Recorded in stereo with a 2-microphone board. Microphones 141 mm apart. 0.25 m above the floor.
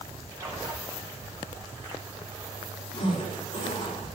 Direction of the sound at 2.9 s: 40° left (ahead or behind).